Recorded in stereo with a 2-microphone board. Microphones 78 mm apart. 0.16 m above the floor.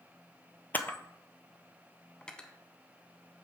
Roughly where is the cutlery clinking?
Centre.